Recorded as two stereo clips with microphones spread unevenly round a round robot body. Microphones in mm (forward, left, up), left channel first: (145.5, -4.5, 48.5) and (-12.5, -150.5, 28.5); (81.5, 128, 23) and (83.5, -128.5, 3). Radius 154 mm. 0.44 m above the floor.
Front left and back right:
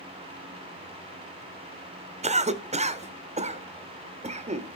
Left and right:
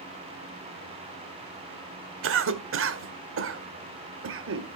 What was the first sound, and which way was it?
A cough, 90° right.